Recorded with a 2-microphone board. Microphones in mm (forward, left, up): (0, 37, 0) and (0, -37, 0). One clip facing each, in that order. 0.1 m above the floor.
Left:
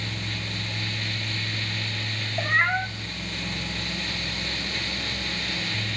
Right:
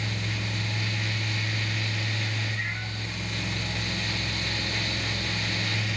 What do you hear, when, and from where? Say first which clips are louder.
2.4 s a cat meowing: left 10 dB; 75° left (ahead or behind), 1.1 m